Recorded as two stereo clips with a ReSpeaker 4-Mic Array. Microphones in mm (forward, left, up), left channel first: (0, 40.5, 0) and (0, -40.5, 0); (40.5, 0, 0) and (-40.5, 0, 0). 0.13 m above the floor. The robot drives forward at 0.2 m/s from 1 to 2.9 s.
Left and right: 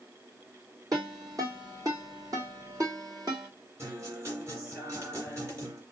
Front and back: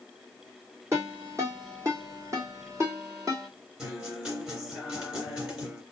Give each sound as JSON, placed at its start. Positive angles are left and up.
{"t": 0.9, "sound": "a ringtone", "azimuth_deg": -130, "distance_m": 2.5}
{"t": 3.8, "sound": "a guitar", "azimuth_deg": -110, "distance_m": 2.0}